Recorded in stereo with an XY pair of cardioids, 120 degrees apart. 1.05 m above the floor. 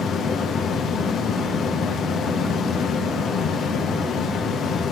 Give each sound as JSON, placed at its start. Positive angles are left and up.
{"t": 0.0, "sound": "a fan", "azimuth_deg": 55, "distance_m": 0.9}